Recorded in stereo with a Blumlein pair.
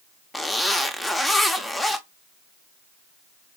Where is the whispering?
No whispering in this recording.